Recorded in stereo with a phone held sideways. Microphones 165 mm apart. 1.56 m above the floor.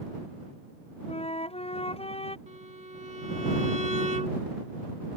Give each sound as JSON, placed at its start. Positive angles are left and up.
{"t": 1.1, "sound": "a flute", "side_deg": 35}
{"t": 2.5, "sound": "a violin", "side_deg": -45}